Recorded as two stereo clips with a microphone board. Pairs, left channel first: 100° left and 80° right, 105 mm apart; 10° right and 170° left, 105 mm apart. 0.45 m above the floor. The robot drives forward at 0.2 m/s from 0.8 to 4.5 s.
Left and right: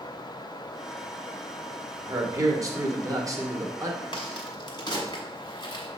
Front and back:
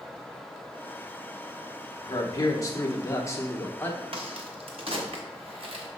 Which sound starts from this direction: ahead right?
A man speaking, at 2.0 s.